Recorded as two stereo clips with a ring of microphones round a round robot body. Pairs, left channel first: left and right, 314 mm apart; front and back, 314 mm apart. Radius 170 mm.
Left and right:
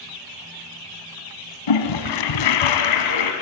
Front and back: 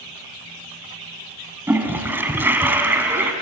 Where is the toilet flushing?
95° left, 1.5 m.